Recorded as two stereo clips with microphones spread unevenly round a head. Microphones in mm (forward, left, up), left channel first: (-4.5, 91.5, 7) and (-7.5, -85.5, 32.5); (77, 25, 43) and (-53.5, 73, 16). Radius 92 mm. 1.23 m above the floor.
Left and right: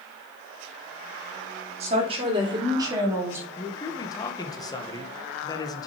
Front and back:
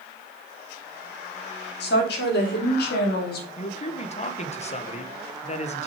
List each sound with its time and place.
1.8 s a woman speaking: 35° right, 3 m; by 3.5 s 10° right, 2.5 m
3.6 s a man speaking: 25° left, 1.3 m